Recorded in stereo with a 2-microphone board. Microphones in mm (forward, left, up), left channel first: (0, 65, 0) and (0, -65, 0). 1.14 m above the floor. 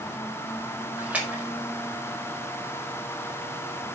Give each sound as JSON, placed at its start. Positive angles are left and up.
{"t": 1.0, "sound": "a splash", "side_deg": -10, "distance_m": 4.5}